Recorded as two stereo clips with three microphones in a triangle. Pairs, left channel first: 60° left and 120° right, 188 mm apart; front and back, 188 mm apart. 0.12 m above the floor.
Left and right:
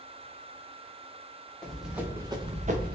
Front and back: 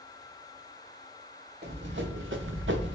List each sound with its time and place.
1.6 s running footsteps: 145° left, 1.2 m; by 3.0 s 155° right, 0.9 m